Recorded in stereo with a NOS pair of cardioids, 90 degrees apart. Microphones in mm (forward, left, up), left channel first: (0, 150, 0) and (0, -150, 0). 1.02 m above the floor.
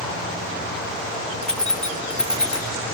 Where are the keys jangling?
5° left, 1.3 m.